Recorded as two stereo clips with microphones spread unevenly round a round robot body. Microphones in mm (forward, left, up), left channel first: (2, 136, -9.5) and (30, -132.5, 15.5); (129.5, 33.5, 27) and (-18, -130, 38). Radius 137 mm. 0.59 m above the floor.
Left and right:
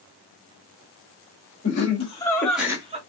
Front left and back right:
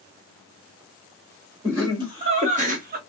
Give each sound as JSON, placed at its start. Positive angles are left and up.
{"t": 1.6, "sound": "laughter", "azimuth_deg": 150, "distance_m": 1.8}